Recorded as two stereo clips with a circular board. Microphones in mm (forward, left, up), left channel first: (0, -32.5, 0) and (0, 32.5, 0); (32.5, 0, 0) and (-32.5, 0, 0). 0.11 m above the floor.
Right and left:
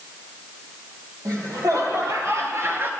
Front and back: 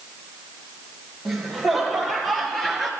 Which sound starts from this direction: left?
Laughter, at 1.2 s.